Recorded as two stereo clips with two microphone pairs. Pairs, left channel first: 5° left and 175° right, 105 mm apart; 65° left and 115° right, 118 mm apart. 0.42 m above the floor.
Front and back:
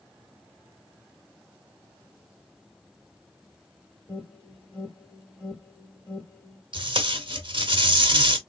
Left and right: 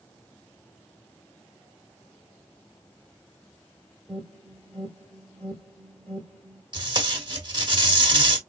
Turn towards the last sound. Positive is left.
turn(degrees=-155)